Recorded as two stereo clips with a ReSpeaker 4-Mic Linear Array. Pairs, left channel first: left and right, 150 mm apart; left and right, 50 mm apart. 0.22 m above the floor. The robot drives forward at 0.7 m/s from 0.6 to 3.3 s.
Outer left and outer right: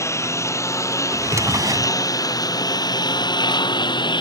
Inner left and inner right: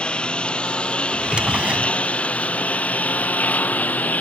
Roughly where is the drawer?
Centre.